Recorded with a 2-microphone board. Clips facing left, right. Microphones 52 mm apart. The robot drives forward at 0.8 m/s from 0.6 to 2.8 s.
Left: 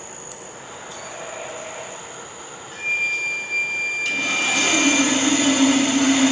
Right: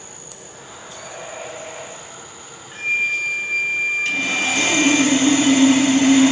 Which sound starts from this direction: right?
Sawing, at 4.0 s.